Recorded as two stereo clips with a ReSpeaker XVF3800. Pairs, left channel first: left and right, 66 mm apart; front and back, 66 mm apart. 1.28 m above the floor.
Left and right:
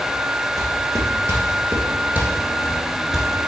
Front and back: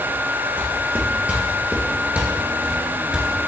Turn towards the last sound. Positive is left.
turn(degrees=-175)